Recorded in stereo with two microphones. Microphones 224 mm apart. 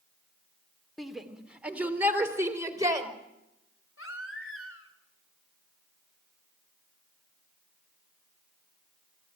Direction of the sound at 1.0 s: Centre (ahead or behind).